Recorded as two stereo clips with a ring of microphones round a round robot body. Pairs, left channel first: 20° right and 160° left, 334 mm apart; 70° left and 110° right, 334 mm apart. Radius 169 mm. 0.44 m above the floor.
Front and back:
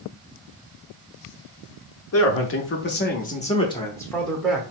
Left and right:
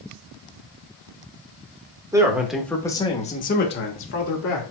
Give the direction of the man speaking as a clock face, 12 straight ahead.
1 o'clock.